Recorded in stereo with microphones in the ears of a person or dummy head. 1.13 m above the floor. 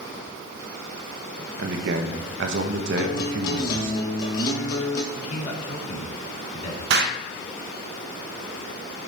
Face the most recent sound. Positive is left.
turn(degrees=-65)  # may be behind; listen again after turning